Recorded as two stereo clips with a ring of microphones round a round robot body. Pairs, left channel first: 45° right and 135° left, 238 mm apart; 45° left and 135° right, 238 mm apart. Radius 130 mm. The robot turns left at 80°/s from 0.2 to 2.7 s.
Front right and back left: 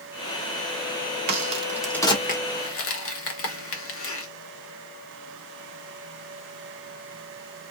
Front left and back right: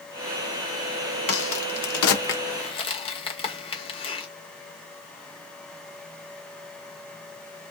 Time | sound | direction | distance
1.3 | a crack | 90° left | 1.2 m